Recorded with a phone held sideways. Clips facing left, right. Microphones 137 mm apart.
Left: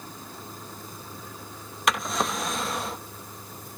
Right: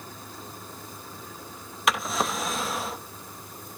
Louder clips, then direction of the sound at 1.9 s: Even; centre (ahead or behind).